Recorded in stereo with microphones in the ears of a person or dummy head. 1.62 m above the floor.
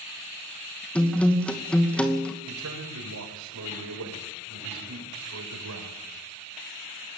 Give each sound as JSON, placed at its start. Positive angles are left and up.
{"t": 0.9, "sound": "a guitar", "side_deg": 5, "distance_m": 2.0}
{"t": 2.5, "sound": "a man speaking", "side_deg": -90, "distance_m": 7.0}